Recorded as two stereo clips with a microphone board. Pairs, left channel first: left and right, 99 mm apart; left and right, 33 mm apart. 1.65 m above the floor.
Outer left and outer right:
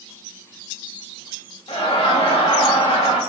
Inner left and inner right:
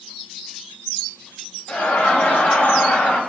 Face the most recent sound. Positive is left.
turn(degrees=80)